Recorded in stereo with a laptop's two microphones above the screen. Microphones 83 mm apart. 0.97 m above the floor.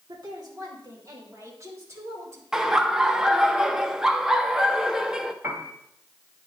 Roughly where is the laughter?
Centre.